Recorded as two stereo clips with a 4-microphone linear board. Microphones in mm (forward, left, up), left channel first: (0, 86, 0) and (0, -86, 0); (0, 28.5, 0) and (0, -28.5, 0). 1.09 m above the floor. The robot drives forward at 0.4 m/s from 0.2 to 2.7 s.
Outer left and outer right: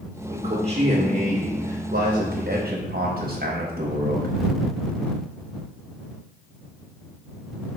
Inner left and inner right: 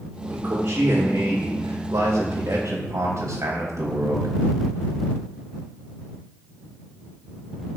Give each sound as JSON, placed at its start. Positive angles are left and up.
{"t": 0.3, "sound": "a man speaking", "side_deg": -40, "distance_m": 1.0}